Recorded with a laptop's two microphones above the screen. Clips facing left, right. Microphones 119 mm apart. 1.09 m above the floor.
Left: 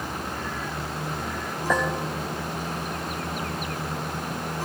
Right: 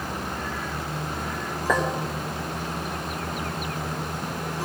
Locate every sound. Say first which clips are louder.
1.7 s a clink: right 1 dB; 80° right, 3.5 m